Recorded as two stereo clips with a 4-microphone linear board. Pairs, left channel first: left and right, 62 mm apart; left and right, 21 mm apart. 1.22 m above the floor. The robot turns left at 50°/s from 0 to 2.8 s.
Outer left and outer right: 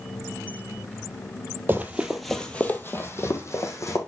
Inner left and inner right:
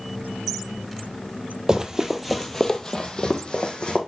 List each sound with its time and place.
1.7 s running footsteps: 30° right (ahead or behind), 1.4 m; by 4.0 s 60° left (ahead or behind), 2.5 m